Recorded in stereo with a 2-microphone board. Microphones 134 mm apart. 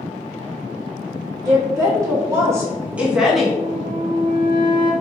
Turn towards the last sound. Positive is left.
turn(degrees=-35)  # may be behind; listen again after turning